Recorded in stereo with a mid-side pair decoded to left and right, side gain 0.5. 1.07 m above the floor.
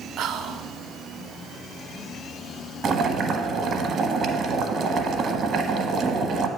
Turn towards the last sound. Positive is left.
turn(degrees=-50)